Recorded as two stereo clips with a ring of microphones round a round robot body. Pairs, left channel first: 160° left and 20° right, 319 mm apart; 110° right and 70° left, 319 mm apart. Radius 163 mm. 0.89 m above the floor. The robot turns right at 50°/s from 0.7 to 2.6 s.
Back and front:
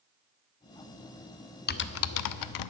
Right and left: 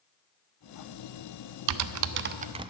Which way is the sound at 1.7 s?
95° left.